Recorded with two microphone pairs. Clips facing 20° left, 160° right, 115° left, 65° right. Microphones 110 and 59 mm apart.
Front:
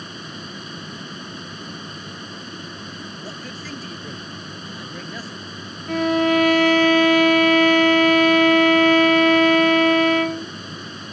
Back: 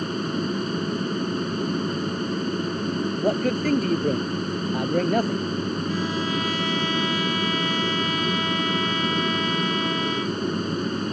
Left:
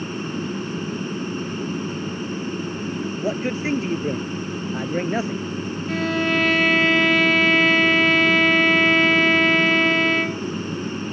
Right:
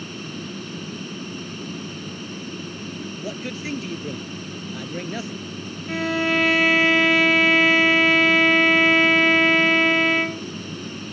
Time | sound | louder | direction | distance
0.0 | an aircraft | back 10 dB, left 6 dB | 170° left | ?
3.2 | a man speaking | back 13 dB, left 8 dB | 170° left | ?
5.9 | a violin | front 8 dB, even | 20° left | ?